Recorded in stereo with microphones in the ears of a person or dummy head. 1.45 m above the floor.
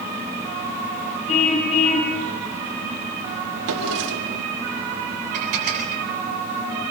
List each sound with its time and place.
1.3 s a car horn: 40° left (ahead or behind), 6 m
3.7 s a drawer: 65° right (ahead or behind), 2.5 m
5.3 s dishes clattering: 40° right (ahead or behind), 9 m